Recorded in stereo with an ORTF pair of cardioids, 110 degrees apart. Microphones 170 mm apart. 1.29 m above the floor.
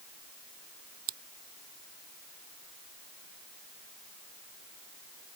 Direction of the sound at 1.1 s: 65° right.